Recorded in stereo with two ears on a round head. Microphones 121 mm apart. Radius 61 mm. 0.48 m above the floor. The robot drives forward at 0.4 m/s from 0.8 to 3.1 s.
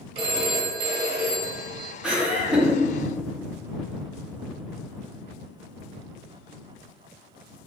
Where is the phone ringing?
45° right (ahead or behind), 1.0 m; by 2.0 s 35° right (ahead or behind), 1.3 m.